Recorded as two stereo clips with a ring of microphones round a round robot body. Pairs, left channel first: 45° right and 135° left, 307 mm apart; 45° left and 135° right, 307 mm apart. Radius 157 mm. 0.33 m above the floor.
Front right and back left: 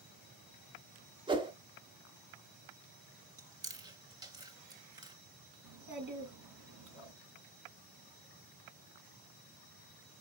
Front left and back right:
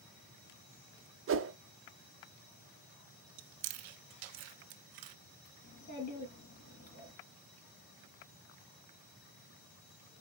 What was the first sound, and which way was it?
A whoosh, 155° right.